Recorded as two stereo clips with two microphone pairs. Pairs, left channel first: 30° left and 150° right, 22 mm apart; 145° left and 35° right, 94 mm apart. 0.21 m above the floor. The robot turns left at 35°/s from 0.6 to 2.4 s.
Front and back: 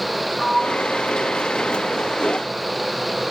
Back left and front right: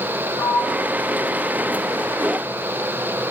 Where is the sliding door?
95° left, 4.5 m; by 2.0 s 45° left, 4.5 m.